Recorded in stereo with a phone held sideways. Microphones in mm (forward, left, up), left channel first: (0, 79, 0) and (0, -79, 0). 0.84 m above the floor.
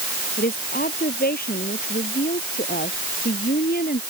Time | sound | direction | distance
0.4 | a woman speaking | 85° left | ?